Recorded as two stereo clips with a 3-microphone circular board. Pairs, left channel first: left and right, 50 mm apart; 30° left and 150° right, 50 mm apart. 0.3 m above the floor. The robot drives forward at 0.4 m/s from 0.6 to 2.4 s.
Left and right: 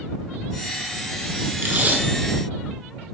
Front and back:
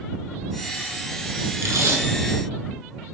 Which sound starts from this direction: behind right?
Tape being pulled, at 1.6 s.